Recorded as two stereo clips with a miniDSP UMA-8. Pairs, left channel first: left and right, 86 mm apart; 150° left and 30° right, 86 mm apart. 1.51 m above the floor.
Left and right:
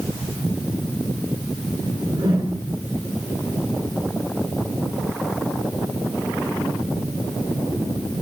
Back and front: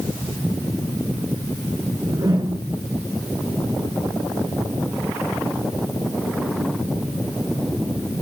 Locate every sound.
1.9 s a whoosh: 80° right, 9.5 m